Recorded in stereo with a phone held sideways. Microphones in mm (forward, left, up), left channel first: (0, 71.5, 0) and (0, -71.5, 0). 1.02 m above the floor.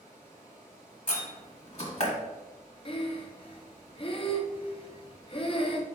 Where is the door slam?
50° left (ahead or behind), 1.2 m.